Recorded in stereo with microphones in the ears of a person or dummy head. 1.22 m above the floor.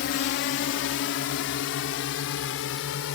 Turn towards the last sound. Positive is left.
turn(degrees=65)  # may be behind; listen again after turning